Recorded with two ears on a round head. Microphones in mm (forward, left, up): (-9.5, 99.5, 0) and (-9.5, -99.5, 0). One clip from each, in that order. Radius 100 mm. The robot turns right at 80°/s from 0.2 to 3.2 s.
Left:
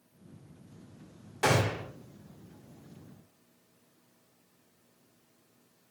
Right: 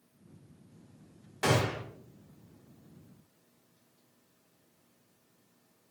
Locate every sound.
1.4 s a gunshot: straight behind, 0.9 m; by 1.8 s 145° right, 0.9 m